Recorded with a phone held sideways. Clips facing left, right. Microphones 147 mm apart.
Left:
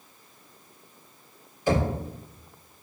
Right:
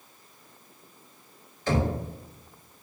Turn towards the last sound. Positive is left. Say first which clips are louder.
# left 2 dB
turn(degrees=15)  # may be behind; listen again after turning